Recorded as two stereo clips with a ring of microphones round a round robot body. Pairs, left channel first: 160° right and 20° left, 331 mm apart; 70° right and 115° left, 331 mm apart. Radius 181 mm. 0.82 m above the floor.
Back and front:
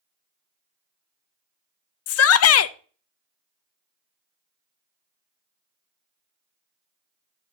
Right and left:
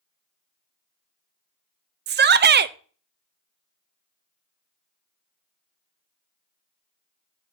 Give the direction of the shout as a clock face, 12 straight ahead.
6 o'clock.